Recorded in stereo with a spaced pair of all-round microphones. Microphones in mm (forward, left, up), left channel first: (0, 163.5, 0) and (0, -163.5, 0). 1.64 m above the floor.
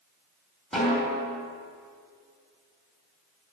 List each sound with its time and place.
0.7 s a snare drum: centre (ahead or behind), 3.5 m